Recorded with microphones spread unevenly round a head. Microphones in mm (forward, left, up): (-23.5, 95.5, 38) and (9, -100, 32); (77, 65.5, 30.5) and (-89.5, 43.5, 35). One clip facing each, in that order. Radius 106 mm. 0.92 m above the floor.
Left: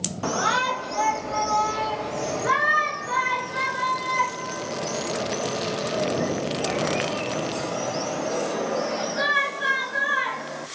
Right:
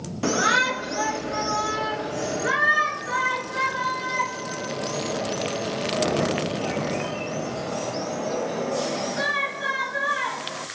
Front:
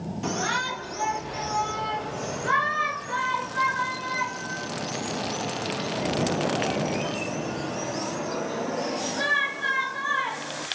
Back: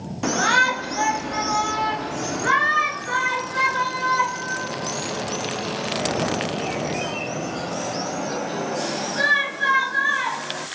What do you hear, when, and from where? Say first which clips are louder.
0.2 s a shout: right 3 dB, back 8 dB; 140° right, 1.3 m; by 10.7 s 175° right, 7 m